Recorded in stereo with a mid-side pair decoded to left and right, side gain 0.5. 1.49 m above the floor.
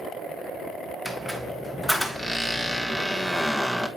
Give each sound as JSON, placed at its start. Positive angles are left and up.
{"t": 1.1, "sound": "a squeak", "azimuth_deg": 0, "distance_m": 1.2}